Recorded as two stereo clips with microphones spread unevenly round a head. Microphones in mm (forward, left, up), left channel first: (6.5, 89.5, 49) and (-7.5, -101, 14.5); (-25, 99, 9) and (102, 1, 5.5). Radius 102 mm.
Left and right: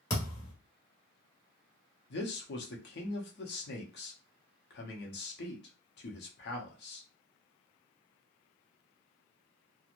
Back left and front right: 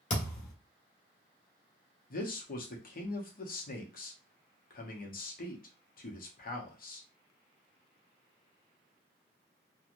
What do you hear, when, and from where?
0.1 s a thud: 140° left, 1.4 m
2.1 s a man speaking: 120° left, 0.9 m